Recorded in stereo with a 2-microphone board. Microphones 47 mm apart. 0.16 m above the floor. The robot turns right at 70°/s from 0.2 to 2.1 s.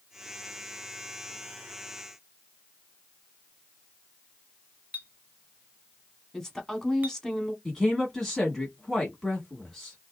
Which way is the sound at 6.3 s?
10° left (ahead or behind).